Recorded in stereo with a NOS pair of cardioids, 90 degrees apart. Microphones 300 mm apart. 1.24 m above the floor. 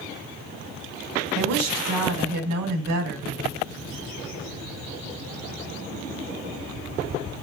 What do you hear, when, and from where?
1.4 s a woman speaking: 65° right, 1.2 m